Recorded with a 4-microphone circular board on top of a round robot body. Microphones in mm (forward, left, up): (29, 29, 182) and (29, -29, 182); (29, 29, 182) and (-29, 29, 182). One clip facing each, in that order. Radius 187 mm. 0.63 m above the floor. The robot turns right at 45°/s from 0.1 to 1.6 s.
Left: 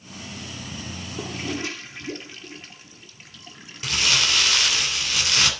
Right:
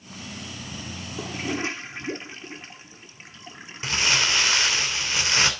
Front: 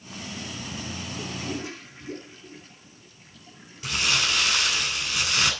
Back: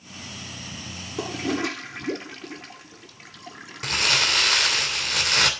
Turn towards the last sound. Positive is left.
turn(degrees=-150)